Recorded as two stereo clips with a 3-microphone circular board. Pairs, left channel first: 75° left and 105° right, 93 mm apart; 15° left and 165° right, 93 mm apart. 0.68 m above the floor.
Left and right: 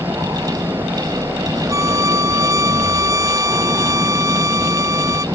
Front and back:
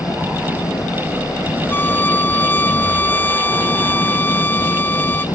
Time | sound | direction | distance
0.0 | an engine running | 35° right | ?
1.7 | a violin | 55° right | ?